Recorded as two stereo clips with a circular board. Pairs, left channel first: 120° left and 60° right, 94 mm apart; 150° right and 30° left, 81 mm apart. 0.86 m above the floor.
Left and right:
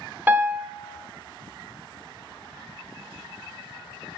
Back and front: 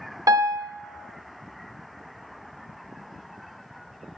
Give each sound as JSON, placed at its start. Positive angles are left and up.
{"t": 0.3, "sound": "a piano", "azimuth_deg": 5, "distance_m": 0.6}